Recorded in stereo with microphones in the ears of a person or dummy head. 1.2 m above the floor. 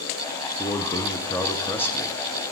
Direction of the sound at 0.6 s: 10° left (ahead or behind).